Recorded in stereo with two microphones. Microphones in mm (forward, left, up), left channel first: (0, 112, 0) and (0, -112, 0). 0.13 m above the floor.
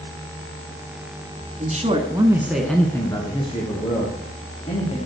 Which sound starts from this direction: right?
A man speaking, at 1.6 s.